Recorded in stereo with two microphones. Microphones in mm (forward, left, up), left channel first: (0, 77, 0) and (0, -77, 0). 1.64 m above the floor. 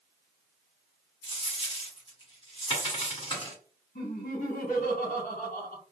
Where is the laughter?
65° left (ahead or behind), 1.2 m.